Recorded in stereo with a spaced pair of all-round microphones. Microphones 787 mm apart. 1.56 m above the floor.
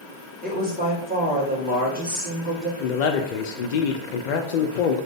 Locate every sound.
0.4 s a woman speaking: 10° right (ahead or behind), 1.3 m
2.8 s a man speaking: 75° left (ahead or behind), 0.5 m